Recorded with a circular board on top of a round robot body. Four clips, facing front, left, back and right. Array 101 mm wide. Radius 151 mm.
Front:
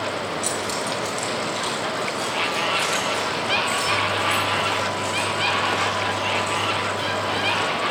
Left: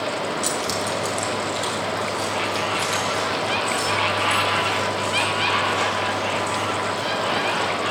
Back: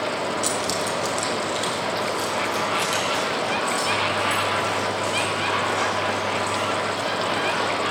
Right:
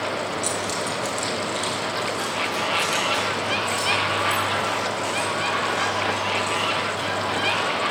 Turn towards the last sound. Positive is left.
turn(degrees=-140)